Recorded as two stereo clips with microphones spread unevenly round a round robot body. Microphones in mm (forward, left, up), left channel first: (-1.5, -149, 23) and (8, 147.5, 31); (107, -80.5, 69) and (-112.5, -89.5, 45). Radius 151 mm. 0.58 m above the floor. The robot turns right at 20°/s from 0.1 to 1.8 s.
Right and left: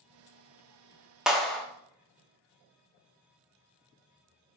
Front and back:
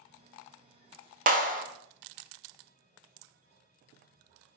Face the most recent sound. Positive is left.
turn(degrees=-175)